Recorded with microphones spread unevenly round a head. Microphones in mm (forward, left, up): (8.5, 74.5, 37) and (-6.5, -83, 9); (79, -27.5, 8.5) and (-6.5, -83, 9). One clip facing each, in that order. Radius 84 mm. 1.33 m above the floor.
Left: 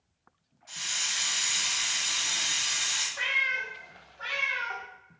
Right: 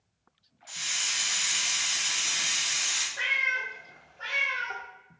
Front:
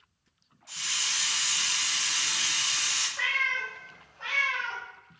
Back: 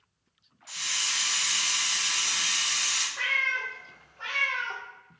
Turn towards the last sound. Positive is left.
turn(degrees=-160)